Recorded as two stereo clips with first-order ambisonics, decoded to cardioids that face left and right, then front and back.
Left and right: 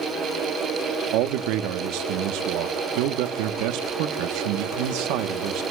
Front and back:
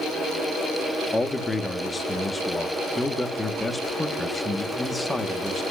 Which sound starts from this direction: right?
A man speaking, at 1.1 s.